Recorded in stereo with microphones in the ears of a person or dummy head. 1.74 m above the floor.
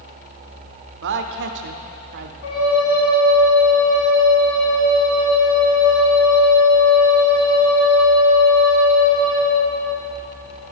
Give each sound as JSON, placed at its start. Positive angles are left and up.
{"t": 1.0, "sound": "a woman speaking", "side_deg": -55, "distance_m": 0.7}
{"t": 2.4, "sound": "a flute", "side_deg": 65, "distance_m": 3.0}